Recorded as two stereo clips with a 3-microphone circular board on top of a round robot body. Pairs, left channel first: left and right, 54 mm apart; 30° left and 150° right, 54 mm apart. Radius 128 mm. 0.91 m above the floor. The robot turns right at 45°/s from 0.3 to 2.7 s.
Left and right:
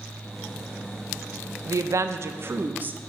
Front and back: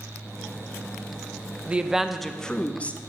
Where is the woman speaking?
85° right, 0.6 m; by 3.0 s 35° right, 0.6 m.